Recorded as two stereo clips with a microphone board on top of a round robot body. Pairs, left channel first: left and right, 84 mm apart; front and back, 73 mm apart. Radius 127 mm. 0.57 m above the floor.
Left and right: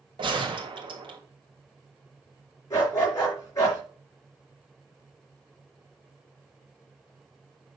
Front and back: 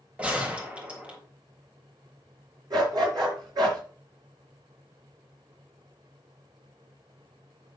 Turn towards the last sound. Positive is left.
turn(degrees=145)